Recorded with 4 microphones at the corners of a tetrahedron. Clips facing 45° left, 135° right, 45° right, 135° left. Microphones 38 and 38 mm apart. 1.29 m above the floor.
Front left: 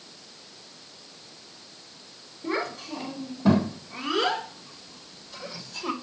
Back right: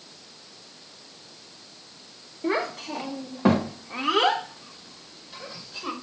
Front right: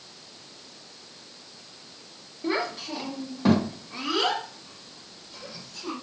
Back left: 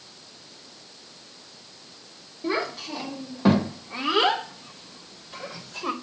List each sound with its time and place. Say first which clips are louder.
2.4 s a child speaking: back right 3 dB, back left 1 dB; 130° right, 1.9 m; by 5.9 s 145° left, 1.4 m